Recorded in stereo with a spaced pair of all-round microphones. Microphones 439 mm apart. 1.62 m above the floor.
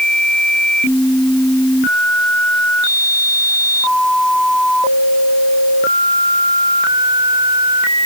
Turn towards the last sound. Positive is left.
No sound to turn to.